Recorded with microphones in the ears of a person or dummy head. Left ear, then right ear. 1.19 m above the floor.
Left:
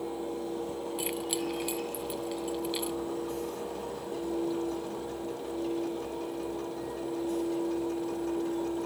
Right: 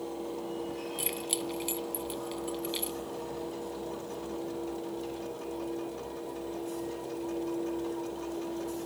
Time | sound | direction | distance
1.0 | keys jangling | centre (ahead or behind) | ?